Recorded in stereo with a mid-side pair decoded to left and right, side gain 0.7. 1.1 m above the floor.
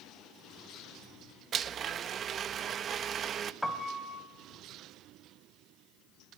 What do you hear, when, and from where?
1.5 s a blender: 40° right, 1.1 m
3.6 s a piano: straight ahead, 2.5 m